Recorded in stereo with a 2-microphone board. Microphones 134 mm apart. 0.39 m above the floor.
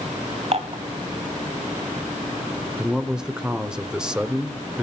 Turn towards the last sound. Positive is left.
turn(degrees=-5)  # may be behind; listen again after turning